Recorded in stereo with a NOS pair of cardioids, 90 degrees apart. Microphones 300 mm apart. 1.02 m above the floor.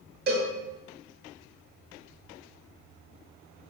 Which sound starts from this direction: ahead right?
A cowbell, at 0.3 s.